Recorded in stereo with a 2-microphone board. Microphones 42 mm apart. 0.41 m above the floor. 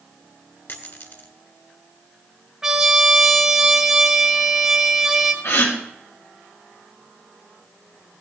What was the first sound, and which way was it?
A dropped coin, 55° left (ahead or behind).